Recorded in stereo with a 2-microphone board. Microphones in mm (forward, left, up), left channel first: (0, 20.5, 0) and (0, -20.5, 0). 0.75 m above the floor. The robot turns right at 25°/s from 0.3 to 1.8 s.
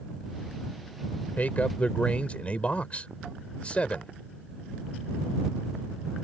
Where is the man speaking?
50° left (ahead or behind); by 4.1 s 35° left (ahead or behind).